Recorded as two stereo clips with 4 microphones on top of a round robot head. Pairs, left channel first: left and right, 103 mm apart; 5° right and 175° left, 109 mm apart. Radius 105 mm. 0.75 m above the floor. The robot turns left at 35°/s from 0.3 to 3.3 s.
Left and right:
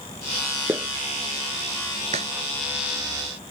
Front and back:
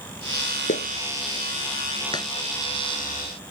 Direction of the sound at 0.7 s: 15° right.